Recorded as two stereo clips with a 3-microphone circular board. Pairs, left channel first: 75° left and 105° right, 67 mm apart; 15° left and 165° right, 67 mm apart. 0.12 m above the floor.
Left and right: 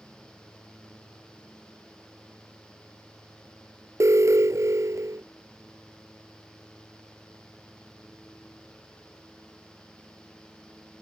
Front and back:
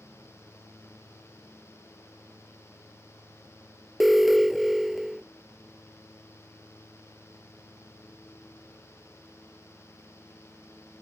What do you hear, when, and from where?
4.0 s an alarm: 75° right